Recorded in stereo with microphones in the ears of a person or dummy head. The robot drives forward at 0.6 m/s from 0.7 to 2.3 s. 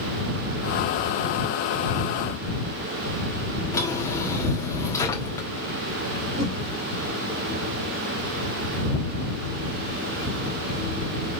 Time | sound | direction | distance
3.7 | a drawer | 20° left (ahead or behind) | 1.2 m
6.4 | a whoosh | 30° right (ahead or behind) | 1.1 m